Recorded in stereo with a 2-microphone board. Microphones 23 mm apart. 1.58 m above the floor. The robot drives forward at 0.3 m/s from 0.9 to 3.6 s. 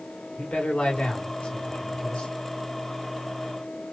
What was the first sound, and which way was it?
A man speaking, 80° left.